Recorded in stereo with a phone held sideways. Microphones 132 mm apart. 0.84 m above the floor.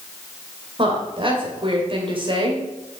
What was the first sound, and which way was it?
A woman speaking, 40° right (ahead or behind).